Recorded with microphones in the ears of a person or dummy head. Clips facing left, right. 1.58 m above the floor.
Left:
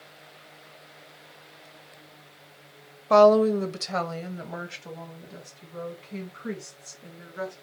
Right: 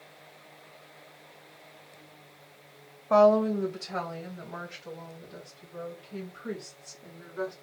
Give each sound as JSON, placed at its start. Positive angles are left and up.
{"t": 3.1, "sound": "a woman speaking", "side_deg": 50, "distance_m": 0.6}